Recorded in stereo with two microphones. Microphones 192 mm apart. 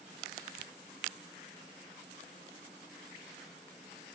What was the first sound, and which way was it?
Only background noise.